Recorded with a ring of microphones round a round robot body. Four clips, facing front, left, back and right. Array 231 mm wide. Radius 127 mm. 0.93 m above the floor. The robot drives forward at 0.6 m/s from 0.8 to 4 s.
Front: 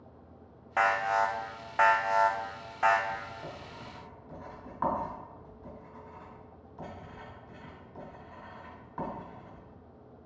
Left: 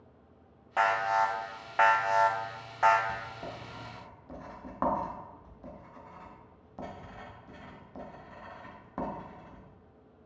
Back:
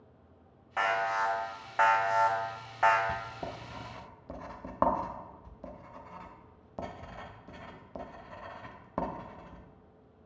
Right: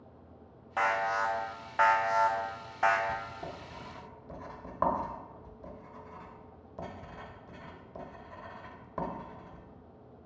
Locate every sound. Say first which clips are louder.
0.8 s an alarm: left 3 dB, front 3 dB; 25° left, 1.5 m; by 3.0 s 150° left, 1.4 m
3.1 s writing: right 1 dB, back 2 dB; 175° right, 0.6 m